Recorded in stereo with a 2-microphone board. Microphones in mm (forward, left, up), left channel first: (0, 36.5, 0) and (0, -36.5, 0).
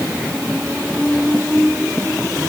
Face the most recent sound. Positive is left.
No sound to turn to.